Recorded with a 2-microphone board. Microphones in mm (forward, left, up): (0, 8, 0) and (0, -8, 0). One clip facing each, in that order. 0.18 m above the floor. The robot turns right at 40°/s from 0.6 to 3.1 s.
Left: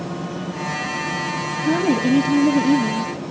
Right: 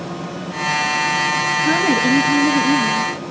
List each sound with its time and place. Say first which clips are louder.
1.6 s a woman speaking: even; 60° right, 3 m; by 3.1 s straight ahead, 3 m